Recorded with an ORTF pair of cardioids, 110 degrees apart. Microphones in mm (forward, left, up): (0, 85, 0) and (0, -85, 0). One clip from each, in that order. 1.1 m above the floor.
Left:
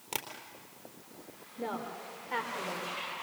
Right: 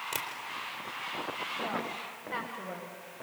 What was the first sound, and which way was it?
Tapping, 10° left.